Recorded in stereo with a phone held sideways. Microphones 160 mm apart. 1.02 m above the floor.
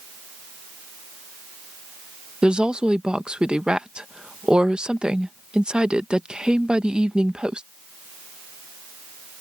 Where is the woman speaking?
5° right (ahead or behind).